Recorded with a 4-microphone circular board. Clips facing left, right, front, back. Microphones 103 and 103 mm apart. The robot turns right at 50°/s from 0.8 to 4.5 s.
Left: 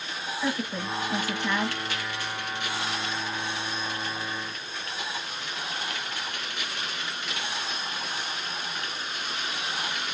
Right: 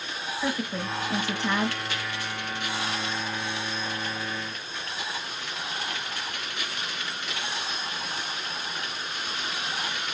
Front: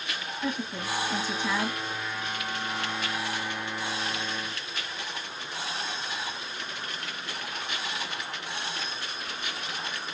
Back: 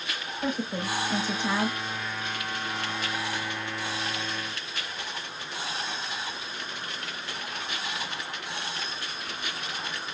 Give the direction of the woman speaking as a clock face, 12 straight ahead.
6 o'clock.